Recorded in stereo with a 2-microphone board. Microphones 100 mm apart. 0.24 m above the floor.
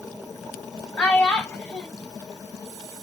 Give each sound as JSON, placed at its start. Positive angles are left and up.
{"t": 1.0, "sound": "a child speaking", "side_deg": 15, "distance_m": 0.9}